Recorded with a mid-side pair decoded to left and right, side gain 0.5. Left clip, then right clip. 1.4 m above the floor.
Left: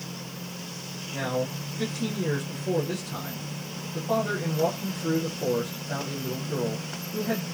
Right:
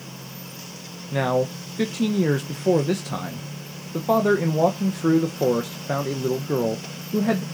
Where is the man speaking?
70° right, 0.9 m.